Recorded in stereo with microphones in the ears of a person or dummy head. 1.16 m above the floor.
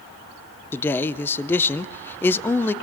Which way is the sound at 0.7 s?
10° left (ahead or behind).